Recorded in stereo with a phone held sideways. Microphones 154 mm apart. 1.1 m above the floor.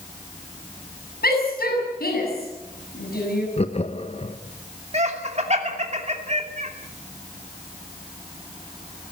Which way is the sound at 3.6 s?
40° left (ahead or behind).